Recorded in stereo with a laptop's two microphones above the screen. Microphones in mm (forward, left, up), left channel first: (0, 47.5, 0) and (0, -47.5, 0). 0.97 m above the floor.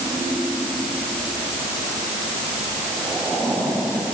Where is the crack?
I don't hear a crack.